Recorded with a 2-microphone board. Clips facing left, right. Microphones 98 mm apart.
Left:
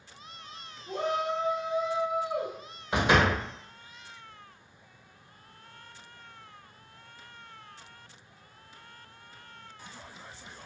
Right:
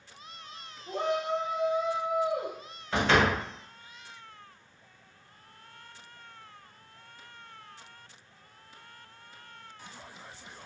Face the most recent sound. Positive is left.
turn(degrees=15)  # may be behind; listen again after turning